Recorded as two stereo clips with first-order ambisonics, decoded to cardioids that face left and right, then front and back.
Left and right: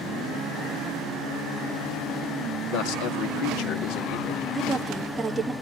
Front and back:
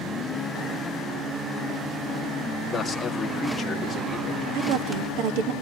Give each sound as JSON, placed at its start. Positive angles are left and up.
{"t": 2.7, "sound": "a man speaking", "azimuth_deg": 75, "distance_m": 2.5}
{"t": 4.5, "sound": "a woman speaking", "azimuth_deg": -170, "distance_m": 1.7}